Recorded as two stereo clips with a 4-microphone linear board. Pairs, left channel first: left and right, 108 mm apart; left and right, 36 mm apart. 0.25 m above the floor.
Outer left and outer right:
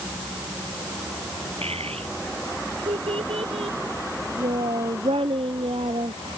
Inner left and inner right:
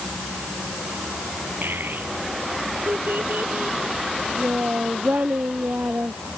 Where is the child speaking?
70° right (ahead or behind); by 6.2 s 60° right (ahead or behind).